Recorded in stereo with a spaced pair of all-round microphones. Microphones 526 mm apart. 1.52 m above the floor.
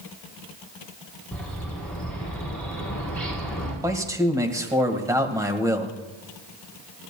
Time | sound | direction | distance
1.3 | a bird | centre (ahead or behind) | 7 m
3.8 | a man speaking | 5° right (ahead or behind) | 1.7 m